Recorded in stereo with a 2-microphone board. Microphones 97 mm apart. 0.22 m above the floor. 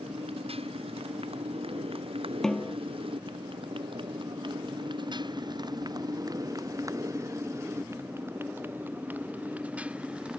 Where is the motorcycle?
85° right; by 10.4 s 10° right (ahead or behind).